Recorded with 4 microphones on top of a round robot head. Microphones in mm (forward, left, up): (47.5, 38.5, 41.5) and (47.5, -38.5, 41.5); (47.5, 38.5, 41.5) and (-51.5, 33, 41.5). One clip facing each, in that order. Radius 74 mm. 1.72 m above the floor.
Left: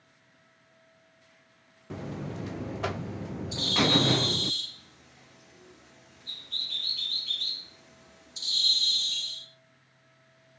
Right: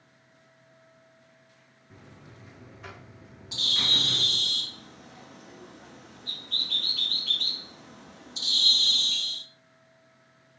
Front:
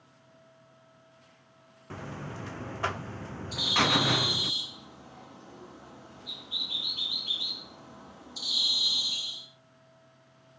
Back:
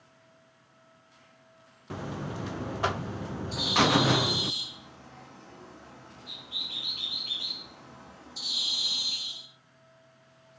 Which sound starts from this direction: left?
A buzzer, at 1.9 s.